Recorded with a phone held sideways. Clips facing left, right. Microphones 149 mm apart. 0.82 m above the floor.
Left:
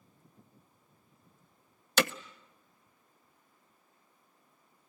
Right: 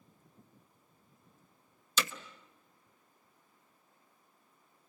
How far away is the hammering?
About 0.7 m.